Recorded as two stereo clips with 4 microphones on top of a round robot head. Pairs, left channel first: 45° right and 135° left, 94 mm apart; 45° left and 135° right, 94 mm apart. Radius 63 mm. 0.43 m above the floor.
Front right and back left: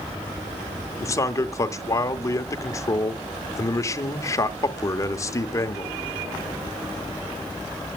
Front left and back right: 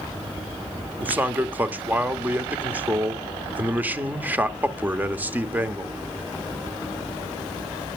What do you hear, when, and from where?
1.0 s a man speaking: 75° right, 1.0 m